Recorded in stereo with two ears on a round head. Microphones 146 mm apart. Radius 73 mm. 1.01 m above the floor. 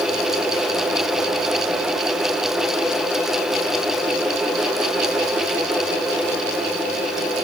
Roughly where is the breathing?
No breathing in this recording.